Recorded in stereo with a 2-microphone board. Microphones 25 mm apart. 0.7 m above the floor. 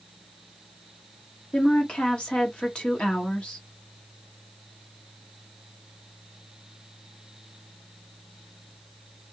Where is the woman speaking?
50° left (ahead or behind), 1.3 m.